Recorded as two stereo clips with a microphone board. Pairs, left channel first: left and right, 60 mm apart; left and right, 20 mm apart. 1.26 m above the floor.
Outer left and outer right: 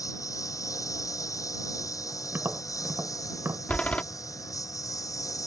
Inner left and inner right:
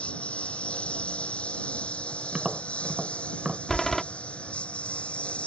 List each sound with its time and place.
0.0 s a lawn mower: 80° left
2.3 s tapping: 45° right (ahead or behind)
3.7 s a door slam: 25° left (ahead or behind)